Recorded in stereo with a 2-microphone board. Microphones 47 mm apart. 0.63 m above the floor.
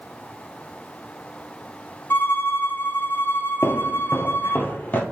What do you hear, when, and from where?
2.1 s a violin: 50° left (ahead or behind), 0.6 m
3.6 s footsteps: 50° left (ahead or behind), 0.9 m; by 5.0 s 35° left (ahead or behind), 1.1 m